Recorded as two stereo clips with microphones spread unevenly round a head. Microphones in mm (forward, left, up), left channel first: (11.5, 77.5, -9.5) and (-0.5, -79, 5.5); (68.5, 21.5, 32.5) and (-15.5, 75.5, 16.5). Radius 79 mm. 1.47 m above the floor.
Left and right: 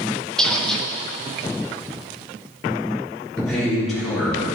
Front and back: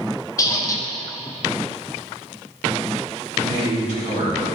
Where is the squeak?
5° right, 0.7 m.